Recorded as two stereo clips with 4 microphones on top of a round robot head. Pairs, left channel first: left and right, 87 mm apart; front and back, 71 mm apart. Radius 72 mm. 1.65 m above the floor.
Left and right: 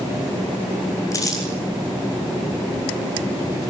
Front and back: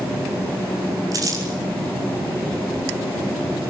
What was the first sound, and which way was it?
Crumpling, 140° left.